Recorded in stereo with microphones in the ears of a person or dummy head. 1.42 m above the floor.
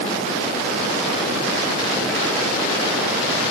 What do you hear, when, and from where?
Only background noise.